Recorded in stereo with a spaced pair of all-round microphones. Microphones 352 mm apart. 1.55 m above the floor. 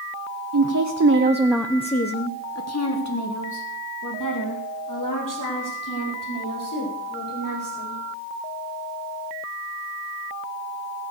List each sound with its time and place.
0.5 s a woman speaking: 65° right (ahead or behind), 1.0 m; by 8.0 s 65° left (ahead or behind), 6 m